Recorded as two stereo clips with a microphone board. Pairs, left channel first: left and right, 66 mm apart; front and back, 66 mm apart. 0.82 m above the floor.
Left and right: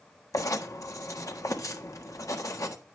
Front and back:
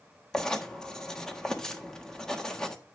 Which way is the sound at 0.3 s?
80° left.